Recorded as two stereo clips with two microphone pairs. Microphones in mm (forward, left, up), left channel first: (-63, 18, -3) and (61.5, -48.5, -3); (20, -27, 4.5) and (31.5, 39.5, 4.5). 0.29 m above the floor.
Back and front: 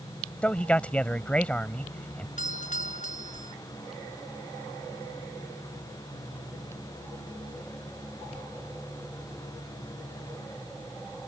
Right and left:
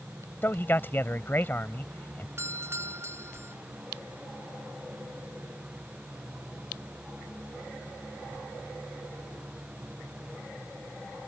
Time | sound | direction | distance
0.4 | a man speaking | 135° right | ?
2.4 | a doorbell | 130° left | ?